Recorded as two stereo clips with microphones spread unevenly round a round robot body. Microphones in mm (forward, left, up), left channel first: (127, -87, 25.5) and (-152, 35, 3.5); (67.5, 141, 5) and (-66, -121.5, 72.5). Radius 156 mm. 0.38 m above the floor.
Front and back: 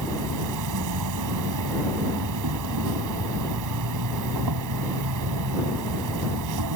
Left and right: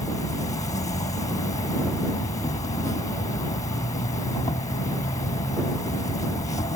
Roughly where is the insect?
Behind left.